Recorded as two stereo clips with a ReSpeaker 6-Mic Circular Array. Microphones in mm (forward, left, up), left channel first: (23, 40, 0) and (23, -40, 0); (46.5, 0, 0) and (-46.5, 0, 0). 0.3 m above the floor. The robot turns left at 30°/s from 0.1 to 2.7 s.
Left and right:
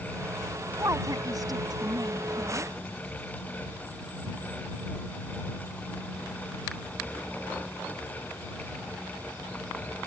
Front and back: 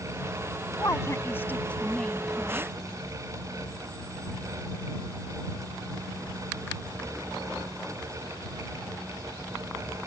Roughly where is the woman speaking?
Ahead right.